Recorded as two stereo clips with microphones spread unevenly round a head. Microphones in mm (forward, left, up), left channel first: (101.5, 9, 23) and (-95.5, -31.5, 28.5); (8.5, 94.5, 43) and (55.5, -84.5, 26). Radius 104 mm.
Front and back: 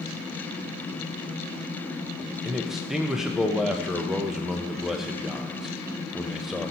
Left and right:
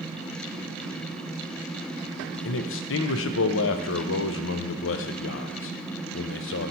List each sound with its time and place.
2.5 s a man speaking: 105° left, 0.6 m